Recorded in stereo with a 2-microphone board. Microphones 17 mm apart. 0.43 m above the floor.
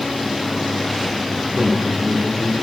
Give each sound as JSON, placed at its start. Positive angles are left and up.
{"t": 1.5, "sound": "a man speaking", "side_deg": -30, "distance_m": 8.0}